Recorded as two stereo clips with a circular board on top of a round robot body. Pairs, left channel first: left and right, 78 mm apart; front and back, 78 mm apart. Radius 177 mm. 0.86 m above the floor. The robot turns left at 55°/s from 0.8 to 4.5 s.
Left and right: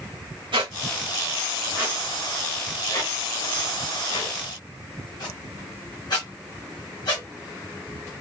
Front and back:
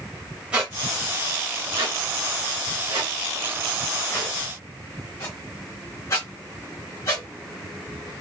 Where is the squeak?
100° right, 0.8 m; by 7.2 s 55° left, 0.8 m.